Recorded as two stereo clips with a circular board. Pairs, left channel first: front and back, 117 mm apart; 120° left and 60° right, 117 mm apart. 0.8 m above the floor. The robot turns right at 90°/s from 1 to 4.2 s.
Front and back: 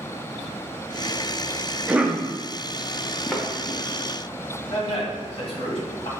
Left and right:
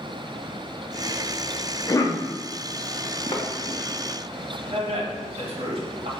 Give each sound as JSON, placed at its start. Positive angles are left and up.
{"t": 1.9, "sound": "a cough", "azimuth_deg": 105, "distance_m": 0.5}
{"t": 3.3, "sound": "a thud", "azimuth_deg": 85, "distance_m": 0.8}
{"t": 4.7, "sound": "a man speaking", "azimuth_deg": -30, "distance_m": 1.1}